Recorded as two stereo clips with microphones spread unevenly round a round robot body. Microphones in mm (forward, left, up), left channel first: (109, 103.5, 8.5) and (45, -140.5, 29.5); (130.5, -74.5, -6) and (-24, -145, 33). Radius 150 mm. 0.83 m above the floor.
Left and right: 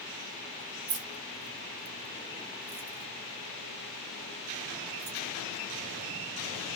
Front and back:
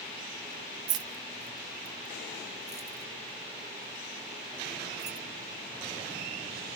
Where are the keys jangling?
170° right, 0.5 m; by 5.2 s 85° right, 2.5 m.